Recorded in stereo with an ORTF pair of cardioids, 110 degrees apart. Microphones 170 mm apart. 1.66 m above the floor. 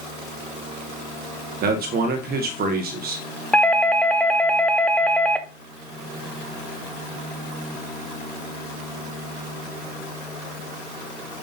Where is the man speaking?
65° right, 1.4 m.